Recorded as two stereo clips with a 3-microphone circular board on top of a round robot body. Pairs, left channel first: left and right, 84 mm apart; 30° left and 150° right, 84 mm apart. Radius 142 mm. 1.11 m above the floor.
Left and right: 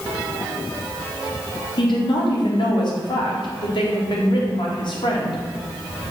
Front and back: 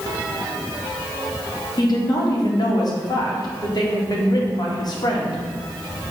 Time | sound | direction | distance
1.8 | a woman speaking | 65° left | 1.9 m